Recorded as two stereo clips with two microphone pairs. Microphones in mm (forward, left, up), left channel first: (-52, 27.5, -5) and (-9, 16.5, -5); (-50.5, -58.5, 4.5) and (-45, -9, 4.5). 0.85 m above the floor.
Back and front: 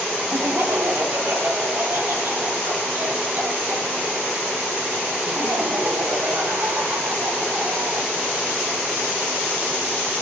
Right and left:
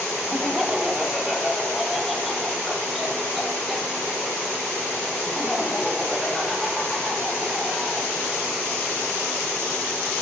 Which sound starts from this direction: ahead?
Laughter, at 0.3 s.